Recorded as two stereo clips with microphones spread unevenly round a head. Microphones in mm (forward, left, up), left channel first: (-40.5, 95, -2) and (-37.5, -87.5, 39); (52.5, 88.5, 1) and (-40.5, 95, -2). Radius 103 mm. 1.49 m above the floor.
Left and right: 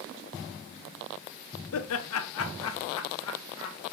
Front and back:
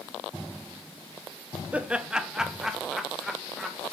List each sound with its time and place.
1.7 s laughter: 100° left, 0.7 m; by 3.8 s 90° left, 1.8 m